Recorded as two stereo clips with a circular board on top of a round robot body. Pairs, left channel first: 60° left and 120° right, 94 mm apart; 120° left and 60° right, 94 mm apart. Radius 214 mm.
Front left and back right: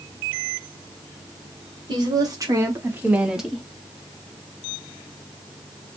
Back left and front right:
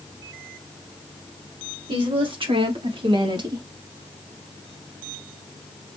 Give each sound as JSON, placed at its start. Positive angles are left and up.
{"t": 1.9, "sound": "a woman speaking", "azimuth_deg": -80, "distance_m": 1.9}